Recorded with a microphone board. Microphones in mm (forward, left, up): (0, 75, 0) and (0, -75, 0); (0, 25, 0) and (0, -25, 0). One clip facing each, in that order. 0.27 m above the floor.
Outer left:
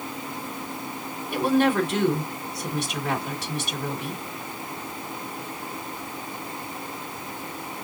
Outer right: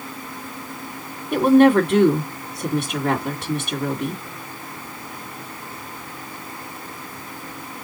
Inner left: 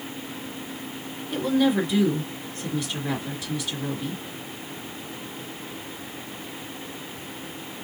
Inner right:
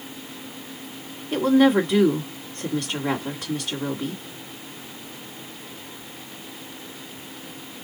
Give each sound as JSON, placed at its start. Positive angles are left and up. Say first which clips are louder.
{"t": 1.3, "sound": "a woman speaking", "louder": "outer right 8 dB, inner right 5 dB", "side_deg": -55, "distance_m": 2.0}